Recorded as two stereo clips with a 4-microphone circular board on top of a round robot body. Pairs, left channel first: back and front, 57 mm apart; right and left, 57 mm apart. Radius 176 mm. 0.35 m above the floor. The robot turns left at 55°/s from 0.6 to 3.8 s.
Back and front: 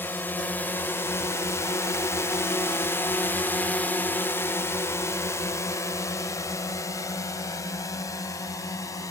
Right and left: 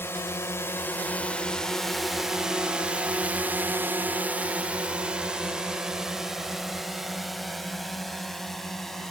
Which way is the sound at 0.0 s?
130° right.